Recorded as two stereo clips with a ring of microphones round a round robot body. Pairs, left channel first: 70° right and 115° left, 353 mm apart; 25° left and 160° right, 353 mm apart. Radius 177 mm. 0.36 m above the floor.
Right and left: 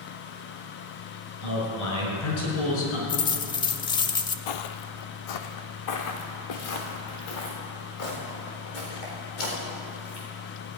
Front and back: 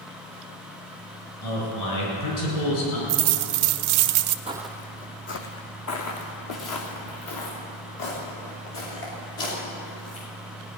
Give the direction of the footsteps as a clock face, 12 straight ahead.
3 o'clock.